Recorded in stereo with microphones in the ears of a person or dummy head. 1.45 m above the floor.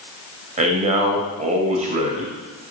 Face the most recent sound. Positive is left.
turn(degrees=-35)  # may be behind; listen again after turning